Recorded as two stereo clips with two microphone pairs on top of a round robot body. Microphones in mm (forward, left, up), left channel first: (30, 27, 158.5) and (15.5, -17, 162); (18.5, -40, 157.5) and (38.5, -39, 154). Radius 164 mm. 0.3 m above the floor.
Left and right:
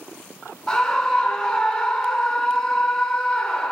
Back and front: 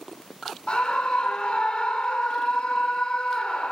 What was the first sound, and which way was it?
A scream, 150° left.